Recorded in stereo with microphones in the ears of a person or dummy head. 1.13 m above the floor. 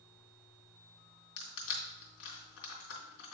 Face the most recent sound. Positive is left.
turn(degrees=75)  # may be behind; listen again after turning